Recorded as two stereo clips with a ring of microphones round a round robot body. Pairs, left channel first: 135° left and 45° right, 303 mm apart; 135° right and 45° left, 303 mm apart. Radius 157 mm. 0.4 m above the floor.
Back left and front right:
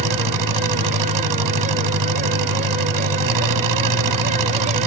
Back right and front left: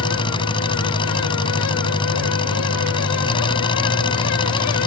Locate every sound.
0.0 s an engine running: 60° right